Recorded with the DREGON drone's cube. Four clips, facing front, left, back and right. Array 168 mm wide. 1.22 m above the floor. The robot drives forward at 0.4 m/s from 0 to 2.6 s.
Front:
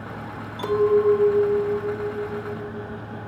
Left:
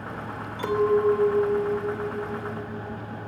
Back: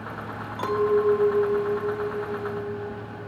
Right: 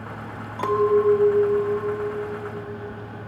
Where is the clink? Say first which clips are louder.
Right 3 dB, front 3 dB; 125° right, 3.5 m; by 3.3 s 135° right, 4 m.